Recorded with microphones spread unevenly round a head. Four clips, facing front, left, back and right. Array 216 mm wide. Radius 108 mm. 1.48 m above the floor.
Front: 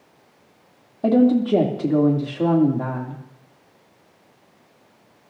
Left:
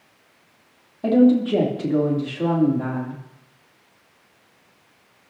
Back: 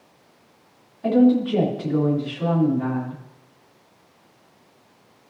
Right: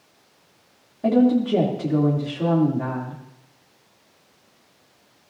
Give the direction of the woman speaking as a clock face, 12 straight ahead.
12 o'clock.